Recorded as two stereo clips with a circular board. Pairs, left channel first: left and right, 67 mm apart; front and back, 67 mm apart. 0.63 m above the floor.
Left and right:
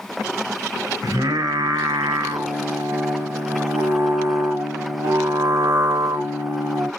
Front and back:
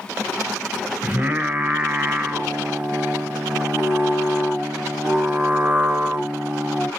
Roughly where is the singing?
Behind right.